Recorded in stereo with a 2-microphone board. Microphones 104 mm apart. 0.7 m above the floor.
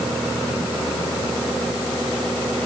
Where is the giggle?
I don't hear a giggle.